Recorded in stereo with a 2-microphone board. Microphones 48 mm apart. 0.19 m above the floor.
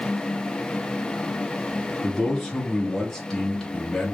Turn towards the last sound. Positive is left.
turn(degrees=10)  # may be behind; listen again after turning